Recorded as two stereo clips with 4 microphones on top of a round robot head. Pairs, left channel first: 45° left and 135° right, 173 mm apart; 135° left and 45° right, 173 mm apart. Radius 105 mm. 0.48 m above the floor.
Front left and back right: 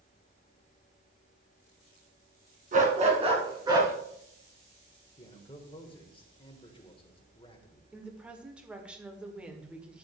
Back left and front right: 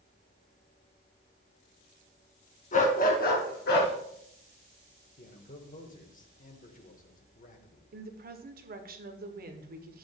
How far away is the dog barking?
About 2 m.